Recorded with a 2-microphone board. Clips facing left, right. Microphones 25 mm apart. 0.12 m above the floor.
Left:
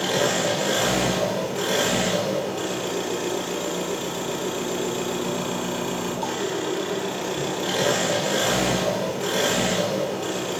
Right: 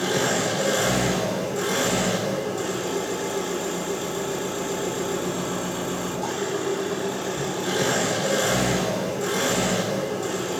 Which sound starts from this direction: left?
An engine running, at 0.0 s.